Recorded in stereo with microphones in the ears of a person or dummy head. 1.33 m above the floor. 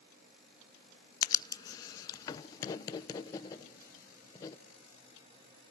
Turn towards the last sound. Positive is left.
turn(degrees=20)  # may be behind; listen again after turning